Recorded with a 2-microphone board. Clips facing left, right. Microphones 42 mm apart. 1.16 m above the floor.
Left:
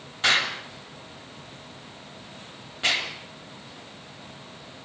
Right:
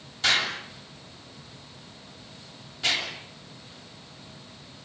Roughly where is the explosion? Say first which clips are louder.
Left 2 dB; left.